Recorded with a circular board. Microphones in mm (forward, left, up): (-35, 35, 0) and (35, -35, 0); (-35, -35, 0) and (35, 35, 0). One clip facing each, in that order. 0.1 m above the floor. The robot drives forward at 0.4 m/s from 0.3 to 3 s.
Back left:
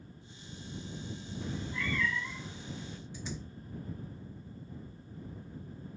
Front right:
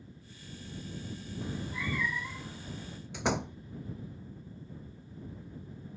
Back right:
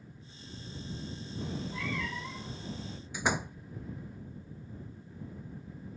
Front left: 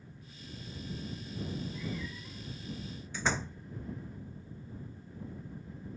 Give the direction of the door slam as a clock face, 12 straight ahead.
2 o'clock.